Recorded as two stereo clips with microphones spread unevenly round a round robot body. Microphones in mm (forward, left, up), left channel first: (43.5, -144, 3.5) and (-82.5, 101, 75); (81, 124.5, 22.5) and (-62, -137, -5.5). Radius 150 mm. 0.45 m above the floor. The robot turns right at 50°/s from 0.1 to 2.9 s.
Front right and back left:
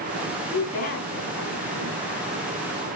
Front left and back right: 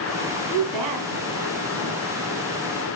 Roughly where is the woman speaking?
Behind right.